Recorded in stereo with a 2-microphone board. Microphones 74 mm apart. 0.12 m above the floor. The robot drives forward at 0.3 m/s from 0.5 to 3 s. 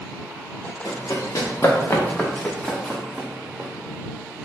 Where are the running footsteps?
65° left (ahead or behind), 1.3 m; by 3.7 s 20° right (ahead or behind), 1.1 m.